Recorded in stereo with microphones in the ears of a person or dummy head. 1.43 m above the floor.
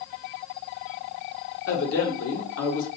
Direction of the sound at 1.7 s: 75° left (ahead or behind).